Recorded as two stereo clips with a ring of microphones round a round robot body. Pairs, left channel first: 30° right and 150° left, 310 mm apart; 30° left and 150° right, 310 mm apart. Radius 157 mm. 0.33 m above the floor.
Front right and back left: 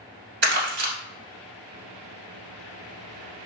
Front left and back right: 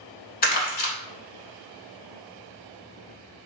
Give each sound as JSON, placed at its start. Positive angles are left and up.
{"t": 0.4, "sound": "crumpling", "azimuth_deg": 95, "distance_m": 1.1}